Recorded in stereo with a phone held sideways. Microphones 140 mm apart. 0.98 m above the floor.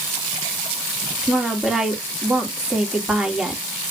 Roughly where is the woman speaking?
Centre.